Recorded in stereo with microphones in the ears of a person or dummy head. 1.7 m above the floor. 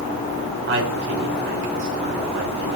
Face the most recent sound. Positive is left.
turn(degrees=-65)  # may be behind; listen again after turning